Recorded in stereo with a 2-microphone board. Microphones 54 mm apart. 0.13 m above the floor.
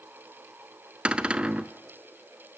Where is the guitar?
I don't hear a guitar.